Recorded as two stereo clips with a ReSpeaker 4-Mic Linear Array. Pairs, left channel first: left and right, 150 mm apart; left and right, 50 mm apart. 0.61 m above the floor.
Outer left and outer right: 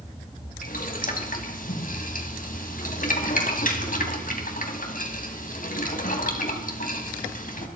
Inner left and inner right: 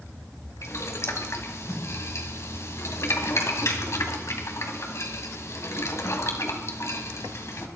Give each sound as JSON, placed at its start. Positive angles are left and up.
{"t": 0.6, "sound": "boiling", "side_deg": 65, "distance_m": 2.5}